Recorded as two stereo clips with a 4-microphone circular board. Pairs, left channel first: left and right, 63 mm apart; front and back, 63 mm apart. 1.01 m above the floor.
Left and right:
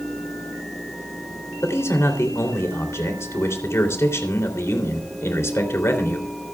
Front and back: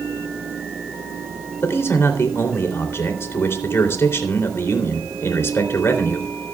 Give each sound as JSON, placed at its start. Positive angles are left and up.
{"t": 1.6, "sound": "a man speaking", "azimuth_deg": 50, "distance_m": 3.0}